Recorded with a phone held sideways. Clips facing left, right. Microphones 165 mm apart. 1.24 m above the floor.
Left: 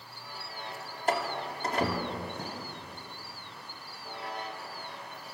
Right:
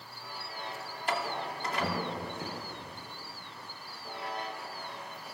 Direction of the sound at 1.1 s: 45° left (ahead or behind).